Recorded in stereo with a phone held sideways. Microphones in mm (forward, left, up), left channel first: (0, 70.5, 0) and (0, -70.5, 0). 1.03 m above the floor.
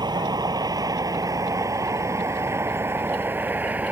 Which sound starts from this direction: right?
A vehicle, at 0.0 s.